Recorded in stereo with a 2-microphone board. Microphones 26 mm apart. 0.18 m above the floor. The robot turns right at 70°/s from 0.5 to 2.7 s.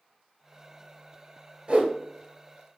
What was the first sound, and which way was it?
A whoosh, 45° right (ahead or behind).